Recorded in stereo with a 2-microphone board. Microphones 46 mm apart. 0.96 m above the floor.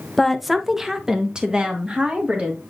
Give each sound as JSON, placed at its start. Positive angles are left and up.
{"t": 0.2, "sound": "a woman speaking", "side_deg": 5, "distance_m": 0.8}